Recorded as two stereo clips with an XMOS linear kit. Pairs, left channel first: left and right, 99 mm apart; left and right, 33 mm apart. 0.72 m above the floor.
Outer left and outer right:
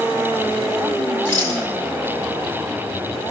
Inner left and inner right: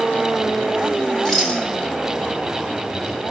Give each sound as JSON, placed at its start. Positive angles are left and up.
{"t": 1.2, "sound": "a rattle", "side_deg": 20, "distance_m": 5.5}